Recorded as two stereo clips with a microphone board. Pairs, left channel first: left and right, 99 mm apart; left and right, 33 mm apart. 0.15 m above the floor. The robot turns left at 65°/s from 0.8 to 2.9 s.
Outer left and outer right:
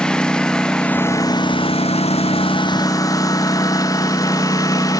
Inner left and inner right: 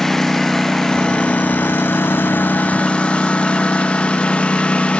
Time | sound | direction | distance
0.0 | a lawn mower | 170° left | ?